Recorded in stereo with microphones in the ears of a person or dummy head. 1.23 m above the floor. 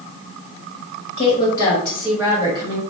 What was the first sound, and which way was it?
A woman speaking, 30° left (ahead or behind).